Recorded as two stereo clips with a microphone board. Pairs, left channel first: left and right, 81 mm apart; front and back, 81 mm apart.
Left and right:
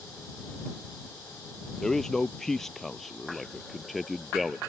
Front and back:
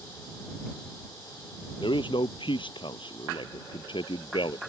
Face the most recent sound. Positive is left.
turn(degrees=0)